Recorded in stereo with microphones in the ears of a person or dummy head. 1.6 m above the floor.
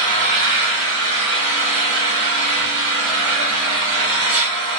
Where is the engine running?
60° right (ahead or behind), 1.3 m.